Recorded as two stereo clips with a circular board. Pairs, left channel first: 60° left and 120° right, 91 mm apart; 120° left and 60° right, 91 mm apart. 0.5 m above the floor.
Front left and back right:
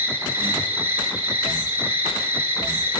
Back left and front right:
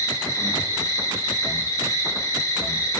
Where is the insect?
175° left, 1.3 m.